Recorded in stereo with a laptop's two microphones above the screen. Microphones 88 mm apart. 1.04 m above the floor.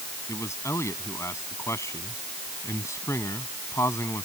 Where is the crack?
No crack in this recording.